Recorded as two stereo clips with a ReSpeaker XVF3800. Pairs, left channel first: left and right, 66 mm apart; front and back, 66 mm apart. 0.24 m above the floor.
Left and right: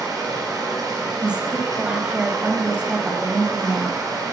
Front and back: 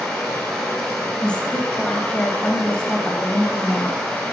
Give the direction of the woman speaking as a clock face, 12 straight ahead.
1 o'clock.